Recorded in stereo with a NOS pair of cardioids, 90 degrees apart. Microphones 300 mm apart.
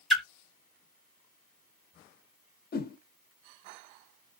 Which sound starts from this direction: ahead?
A splash, at 0.1 s.